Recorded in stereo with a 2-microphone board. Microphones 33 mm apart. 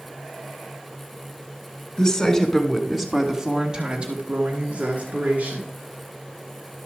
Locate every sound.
2.0 s a woman speaking: 20° left (ahead or behind), 1.4 m; by 5.7 s 50° right (ahead or behind), 2.0 m